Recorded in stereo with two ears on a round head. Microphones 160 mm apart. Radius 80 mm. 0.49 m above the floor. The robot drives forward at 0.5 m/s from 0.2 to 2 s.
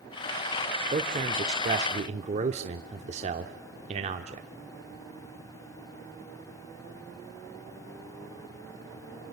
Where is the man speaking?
30° right (ahead or behind), 1.3 m; by 4.5 s 35° right (ahead or behind), 1.1 m.